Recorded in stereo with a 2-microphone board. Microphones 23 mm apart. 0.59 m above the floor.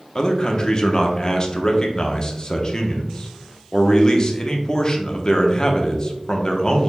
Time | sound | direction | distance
0.1 | a man speaking | 35° left (ahead or behind) | 0.8 m